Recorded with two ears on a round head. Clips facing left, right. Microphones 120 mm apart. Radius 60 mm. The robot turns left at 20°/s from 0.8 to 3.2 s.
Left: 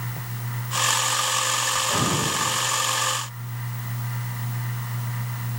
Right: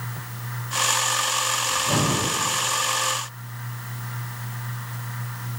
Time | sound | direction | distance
1.7 | breathing | 65° right (ahead or behind) | 2.5 m